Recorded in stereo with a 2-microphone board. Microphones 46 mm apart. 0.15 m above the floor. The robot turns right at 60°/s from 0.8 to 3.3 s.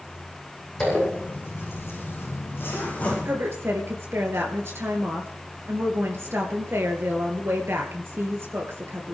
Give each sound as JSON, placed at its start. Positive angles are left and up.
{"t": 0.8, "sound": "a zipper", "side_deg": 20, "distance_m": 8.5}
{"t": 3.2, "sound": "a woman speaking", "side_deg": -65, "distance_m": 2.5}